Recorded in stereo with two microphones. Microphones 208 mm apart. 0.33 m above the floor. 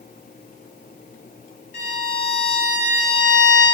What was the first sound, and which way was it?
A violin, 60° left (ahead or behind).